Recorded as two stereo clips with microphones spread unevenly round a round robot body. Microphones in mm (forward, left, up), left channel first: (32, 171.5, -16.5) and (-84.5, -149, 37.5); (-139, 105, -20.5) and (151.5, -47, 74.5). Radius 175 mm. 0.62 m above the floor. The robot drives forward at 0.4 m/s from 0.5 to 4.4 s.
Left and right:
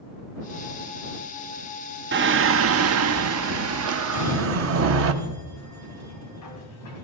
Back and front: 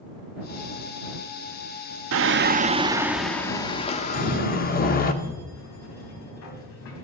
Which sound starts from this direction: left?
A sliding door, at 4.1 s.